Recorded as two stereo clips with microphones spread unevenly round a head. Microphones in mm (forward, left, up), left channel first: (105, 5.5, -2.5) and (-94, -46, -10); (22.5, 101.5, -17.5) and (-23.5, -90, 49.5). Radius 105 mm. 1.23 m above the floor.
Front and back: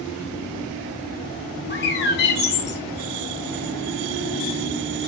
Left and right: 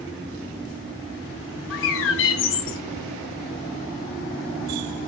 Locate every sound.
1.7 s a bird: 40° left, 1.4 m